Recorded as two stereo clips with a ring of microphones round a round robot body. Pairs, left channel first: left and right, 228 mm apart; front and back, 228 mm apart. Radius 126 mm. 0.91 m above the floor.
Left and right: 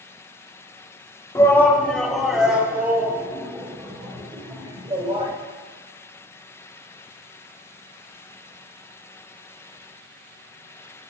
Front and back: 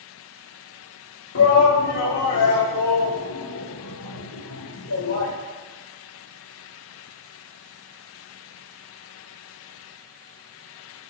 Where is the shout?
15° left, 2 m; by 5.3 s 25° right, 5 m.